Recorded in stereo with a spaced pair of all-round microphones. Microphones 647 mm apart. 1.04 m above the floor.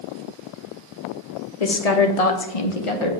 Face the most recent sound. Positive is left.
turn(degrees=45)  # may be behind; listen again after turning